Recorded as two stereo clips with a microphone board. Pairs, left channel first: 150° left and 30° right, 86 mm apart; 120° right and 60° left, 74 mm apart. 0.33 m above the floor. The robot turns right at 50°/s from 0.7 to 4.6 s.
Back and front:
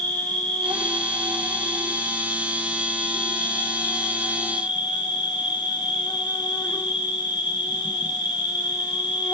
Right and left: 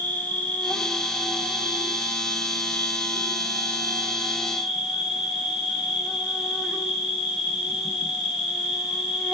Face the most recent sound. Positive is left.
turn(degrees=135)